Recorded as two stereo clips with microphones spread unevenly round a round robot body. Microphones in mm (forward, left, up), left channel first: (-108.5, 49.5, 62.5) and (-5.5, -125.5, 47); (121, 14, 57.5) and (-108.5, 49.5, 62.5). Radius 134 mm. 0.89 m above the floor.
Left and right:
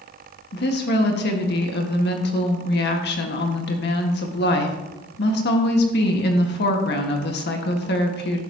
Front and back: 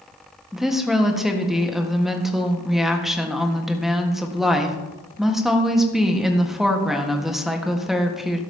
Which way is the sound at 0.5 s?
80° left.